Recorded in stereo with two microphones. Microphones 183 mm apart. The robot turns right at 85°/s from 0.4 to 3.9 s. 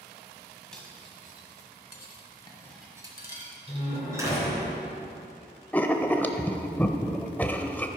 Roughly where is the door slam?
Right.